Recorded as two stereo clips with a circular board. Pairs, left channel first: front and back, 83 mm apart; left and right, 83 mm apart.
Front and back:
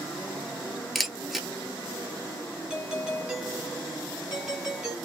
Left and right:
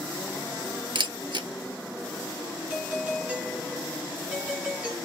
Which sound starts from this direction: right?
A camera shutter, at 0.9 s.